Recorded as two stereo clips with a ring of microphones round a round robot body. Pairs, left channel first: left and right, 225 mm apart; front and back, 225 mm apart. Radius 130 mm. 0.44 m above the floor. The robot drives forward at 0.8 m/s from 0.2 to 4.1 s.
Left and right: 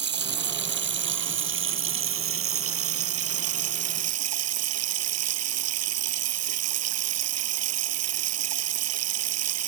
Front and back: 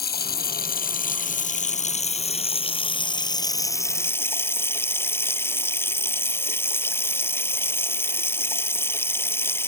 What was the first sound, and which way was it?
Running water, 50° right.